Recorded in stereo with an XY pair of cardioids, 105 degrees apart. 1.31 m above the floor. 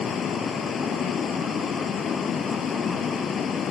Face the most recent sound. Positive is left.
turn(degrees=50)